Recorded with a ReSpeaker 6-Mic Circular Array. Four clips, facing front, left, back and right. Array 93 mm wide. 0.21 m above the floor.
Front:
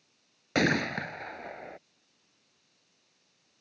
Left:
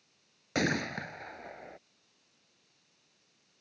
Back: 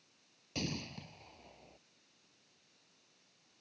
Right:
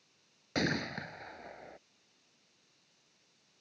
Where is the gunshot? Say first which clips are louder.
Left 3 dB, front 15 dB; 10° left.